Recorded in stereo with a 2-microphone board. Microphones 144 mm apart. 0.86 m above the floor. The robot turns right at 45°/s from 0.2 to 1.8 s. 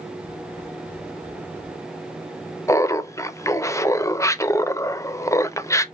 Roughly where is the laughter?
Left.